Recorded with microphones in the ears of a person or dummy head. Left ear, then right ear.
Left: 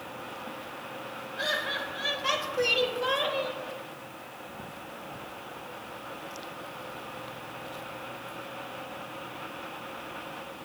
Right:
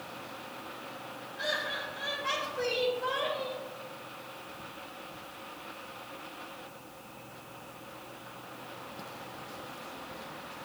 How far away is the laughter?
About 5 m.